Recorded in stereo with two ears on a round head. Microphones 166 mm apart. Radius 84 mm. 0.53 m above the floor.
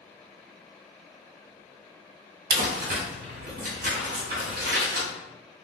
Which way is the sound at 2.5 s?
45° right (ahead or behind).